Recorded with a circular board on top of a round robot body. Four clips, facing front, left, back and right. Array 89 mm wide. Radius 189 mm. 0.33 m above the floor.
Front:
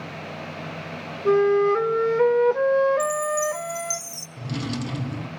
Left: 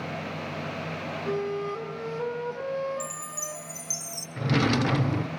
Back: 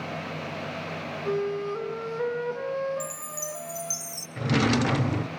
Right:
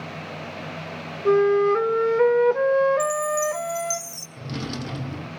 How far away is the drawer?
About 1.2 m.